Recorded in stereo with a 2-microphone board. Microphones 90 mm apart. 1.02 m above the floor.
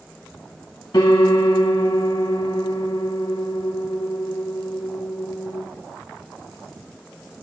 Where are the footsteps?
I don't hear footsteps.